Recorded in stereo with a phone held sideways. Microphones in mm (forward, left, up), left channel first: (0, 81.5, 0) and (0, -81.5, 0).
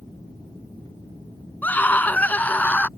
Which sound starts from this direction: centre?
A scream, at 1.6 s.